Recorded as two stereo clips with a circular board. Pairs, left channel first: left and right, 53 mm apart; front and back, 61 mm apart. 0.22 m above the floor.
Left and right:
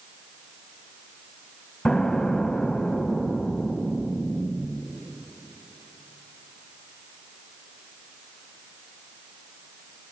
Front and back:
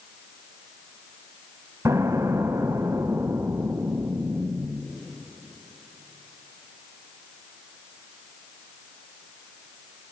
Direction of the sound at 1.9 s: 165° left.